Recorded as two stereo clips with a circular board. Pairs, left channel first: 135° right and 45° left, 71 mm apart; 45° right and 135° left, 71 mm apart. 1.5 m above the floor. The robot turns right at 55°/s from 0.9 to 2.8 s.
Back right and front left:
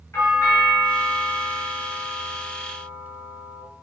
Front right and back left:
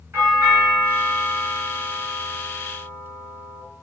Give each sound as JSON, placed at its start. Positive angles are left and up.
{"t": 0.1, "sound": "a doorbell", "azimuth_deg": -170, "distance_m": 2.5}